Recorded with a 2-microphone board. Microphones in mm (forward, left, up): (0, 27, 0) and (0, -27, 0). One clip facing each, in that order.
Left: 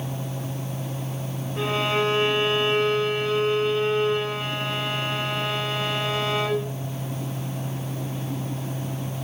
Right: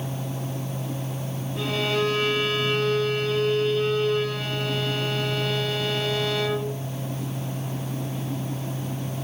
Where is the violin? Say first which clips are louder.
Left 1 dB; 25° left (ahead or behind), 5.5 m.